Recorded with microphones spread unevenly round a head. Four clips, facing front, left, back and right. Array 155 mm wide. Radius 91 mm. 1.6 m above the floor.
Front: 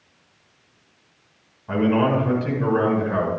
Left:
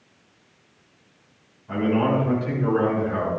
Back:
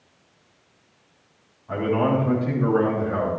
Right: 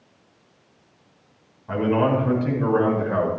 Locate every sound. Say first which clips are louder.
1.7 s a man speaking: right 1 dB, front 2 dB; 15° right, 5 m; by 3.3 s 35° right, 5.5 m